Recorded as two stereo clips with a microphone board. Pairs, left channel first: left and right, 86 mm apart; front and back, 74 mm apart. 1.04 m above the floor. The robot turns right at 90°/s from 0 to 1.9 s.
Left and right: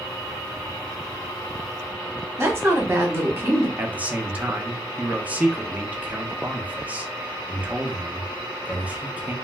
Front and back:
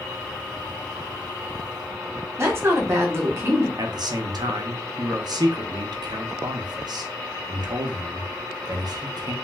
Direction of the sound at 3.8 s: 160° right.